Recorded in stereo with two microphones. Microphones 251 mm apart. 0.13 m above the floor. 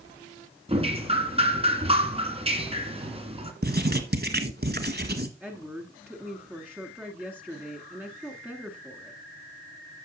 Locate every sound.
0.7 s dripping: 25° right (ahead or behind), 1.5 m
3.6 s writing: 40° right (ahead or behind), 1.0 m
5.4 s a woman speaking: 5° right (ahead or behind), 1.2 m